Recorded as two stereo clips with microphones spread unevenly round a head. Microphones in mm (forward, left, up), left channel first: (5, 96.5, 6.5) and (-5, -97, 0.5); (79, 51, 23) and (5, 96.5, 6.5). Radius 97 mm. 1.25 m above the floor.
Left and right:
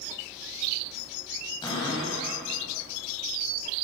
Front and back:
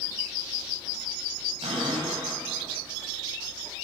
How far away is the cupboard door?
About 7 m.